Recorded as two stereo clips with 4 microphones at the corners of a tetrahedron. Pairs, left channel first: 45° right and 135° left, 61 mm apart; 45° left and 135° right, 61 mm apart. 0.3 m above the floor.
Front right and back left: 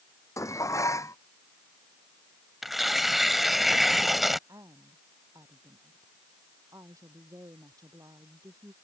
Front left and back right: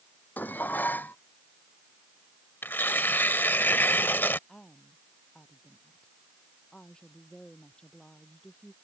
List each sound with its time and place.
0.4 s dishes clattering: 15° right
2.6 s tearing paper: 50° left
4.5 s a woman speaking: 120° left